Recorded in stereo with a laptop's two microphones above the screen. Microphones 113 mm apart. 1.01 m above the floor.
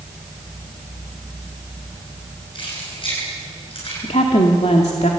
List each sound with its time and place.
2.5 s keys jangling: 50° left (ahead or behind), 9 m; by 3.9 s 55° left (ahead or behind), 9.5 m
4.0 s a woman speaking: 75° left (ahead or behind), 2 m